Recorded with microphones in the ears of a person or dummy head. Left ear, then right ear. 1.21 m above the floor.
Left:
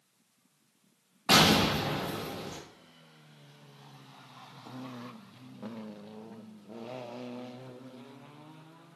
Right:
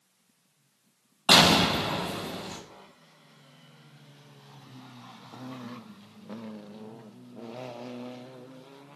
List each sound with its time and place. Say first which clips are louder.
1.3 s an explosion: right 4 dB; 25° right (ahead or behind), 0.6 m